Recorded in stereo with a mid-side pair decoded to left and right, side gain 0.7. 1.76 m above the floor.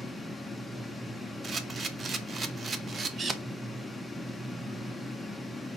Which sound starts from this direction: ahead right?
A camera shutter, at 1.4 s.